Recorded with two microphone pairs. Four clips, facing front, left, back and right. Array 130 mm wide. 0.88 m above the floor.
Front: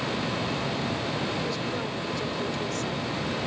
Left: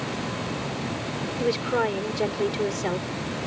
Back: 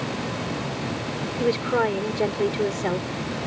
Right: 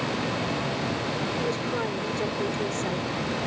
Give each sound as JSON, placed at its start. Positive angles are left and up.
{"t": 1.4, "sound": "a woman speaking", "azimuth_deg": 150}